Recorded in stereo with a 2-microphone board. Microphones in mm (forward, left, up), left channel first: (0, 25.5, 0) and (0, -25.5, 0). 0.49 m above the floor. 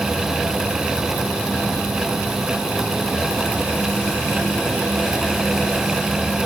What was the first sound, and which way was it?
Only background noise.